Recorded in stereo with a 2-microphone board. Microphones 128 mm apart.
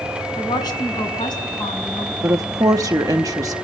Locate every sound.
0.4 s a woman speaking: 35° left (ahead or behind), 5 m
2.2 s a woman speaking: 25° right (ahead or behind), 0.7 m